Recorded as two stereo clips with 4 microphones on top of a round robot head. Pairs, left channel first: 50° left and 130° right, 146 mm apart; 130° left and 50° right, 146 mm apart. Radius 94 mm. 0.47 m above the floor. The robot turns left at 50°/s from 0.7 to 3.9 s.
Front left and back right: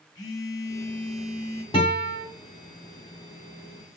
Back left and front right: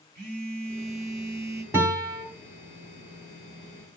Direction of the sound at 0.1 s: 15° right.